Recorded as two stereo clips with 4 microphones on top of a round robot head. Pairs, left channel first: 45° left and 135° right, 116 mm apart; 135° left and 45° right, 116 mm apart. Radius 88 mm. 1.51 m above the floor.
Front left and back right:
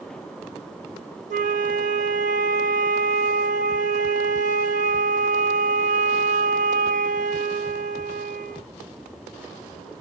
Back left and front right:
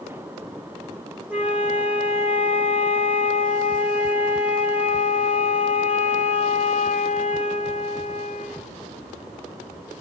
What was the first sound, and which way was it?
A flute, 125° right.